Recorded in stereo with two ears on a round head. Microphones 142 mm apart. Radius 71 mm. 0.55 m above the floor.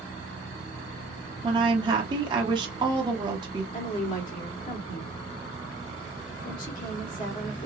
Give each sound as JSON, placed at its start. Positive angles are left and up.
{"t": 1.4, "sound": "a woman speaking", "side_deg": -30, "distance_m": 1.0}
{"t": 3.7, "sound": "a woman speaking", "side_deg": 40, "distance_m": 1.8}